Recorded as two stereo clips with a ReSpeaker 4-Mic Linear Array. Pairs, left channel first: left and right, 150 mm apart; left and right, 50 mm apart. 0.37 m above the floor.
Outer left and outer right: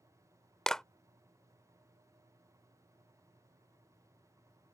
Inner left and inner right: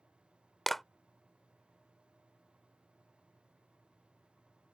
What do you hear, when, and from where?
0.7 s a clap: 5° left (ahead or behind)